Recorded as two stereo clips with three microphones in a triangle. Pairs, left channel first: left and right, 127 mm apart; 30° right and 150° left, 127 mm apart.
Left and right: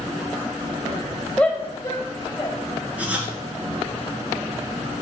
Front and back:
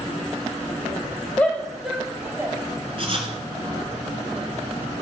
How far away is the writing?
About 1.6 m.